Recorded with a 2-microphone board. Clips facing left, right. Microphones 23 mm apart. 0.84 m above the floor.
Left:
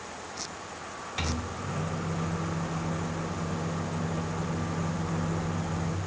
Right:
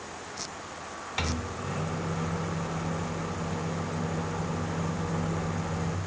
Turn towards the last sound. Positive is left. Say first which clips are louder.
# right 1 dB
turn(degrees=-25)  # may be behind; listen again after turning